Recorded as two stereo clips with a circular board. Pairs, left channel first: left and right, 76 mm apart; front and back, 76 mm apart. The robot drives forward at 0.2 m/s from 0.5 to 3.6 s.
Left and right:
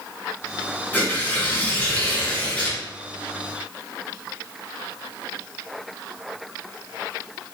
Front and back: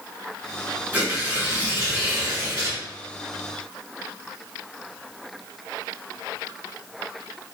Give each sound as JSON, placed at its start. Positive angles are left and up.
{"t": 0.9, "sound": "tearing paper", "azimuth_deg": 135, "distance_m": 1.0}